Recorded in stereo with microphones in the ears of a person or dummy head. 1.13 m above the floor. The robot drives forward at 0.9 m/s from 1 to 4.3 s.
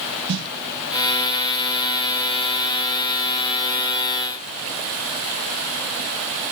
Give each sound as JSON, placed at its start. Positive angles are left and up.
{"t": 0.3, "sound": "a snare drum", "side_deg": -65, "distance_m": 1.6}